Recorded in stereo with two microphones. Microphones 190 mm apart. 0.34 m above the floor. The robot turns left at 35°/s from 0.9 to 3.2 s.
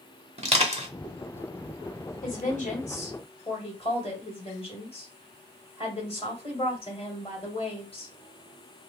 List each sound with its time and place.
0.4 s crushing: 35° right (ahead or behind), 0.9 m
2.2 s a woman speaking: 80° left, 1.7 m; by 8.1 s 45° left, 1.7 m